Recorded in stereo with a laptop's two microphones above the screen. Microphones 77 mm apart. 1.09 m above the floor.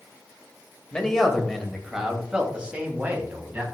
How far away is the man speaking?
About 1.6 m.